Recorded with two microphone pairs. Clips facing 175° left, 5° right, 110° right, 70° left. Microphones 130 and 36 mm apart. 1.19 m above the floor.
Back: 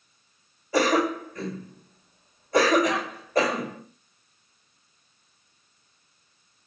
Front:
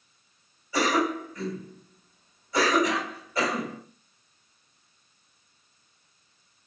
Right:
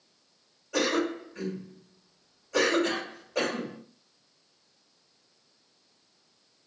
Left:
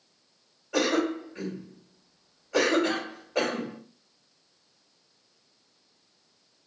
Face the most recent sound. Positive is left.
turn(degrees=135)